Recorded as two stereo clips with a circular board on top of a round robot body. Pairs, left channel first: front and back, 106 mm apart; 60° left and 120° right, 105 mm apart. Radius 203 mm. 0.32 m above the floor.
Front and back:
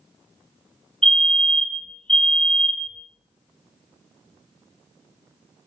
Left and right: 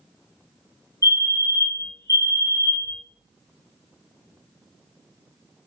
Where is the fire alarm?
75° left, 2 m.